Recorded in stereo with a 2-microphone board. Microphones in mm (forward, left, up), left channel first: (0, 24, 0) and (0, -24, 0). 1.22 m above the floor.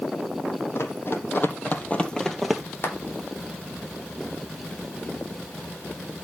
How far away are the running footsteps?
About 2.5 m.